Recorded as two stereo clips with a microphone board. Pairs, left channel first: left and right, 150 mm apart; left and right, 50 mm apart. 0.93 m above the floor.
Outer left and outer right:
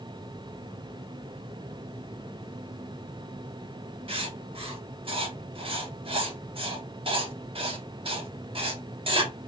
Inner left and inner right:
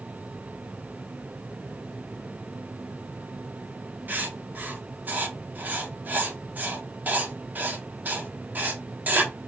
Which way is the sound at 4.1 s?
40° right (ahead or behind).